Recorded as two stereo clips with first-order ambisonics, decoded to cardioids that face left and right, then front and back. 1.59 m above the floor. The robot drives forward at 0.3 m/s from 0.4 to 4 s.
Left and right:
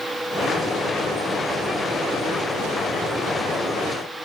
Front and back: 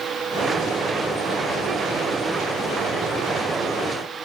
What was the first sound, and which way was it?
Only background noise.